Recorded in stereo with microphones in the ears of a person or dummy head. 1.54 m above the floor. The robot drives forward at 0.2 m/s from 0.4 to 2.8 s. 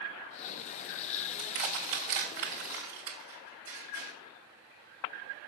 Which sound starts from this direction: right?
Crushing, at 1.4 s.